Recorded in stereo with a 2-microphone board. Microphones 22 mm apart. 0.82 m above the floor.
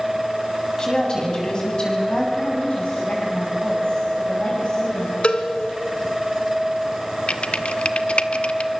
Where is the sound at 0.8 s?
40° left (ahead or behind), 7 m; by 2.3 s 45° left (ahead or behind), 8 m.